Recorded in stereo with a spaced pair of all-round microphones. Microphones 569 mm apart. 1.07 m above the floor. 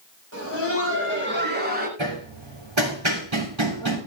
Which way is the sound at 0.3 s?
25° right (ahead or behind).